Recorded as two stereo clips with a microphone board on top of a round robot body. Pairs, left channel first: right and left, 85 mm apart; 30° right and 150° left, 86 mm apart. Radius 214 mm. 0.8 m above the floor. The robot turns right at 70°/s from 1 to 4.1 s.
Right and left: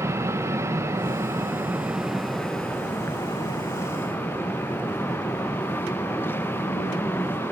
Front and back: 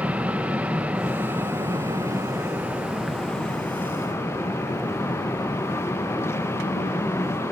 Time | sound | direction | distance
0.0 | an aircraft | 90° left | ?